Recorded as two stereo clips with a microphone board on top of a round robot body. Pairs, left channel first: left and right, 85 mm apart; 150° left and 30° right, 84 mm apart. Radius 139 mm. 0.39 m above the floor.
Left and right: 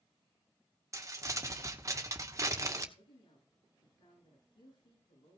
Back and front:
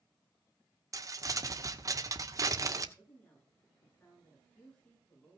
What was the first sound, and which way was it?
Crumpling, 55° right.